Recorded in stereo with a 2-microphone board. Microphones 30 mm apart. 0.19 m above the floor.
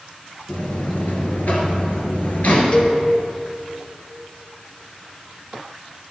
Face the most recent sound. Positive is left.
turn(degrees=40)  # may be behind; listen again after turning